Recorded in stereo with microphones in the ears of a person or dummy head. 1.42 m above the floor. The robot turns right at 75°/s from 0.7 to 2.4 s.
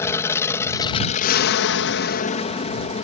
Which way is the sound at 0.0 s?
20° left.